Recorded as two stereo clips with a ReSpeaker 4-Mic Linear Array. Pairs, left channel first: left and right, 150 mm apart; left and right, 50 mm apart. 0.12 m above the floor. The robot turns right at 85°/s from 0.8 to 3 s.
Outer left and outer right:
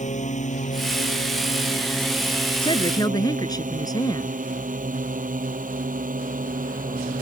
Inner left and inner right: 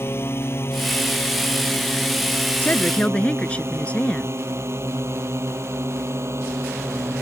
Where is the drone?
55° left (ahead or behind); by 7.2 s 65° right (ahead or behind).